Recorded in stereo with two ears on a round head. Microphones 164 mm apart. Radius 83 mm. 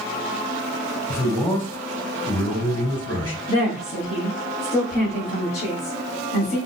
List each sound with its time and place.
1.1 s a man speaking: 20° left (ahead or behind), 3.5 m
3.5 s a woman speaking: 35° left (ahead or behind), 2 m